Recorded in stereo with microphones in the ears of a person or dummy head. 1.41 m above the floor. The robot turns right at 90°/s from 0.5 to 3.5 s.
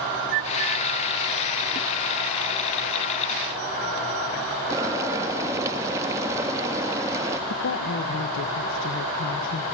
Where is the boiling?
20° right (ahead or behind), 1.7 m.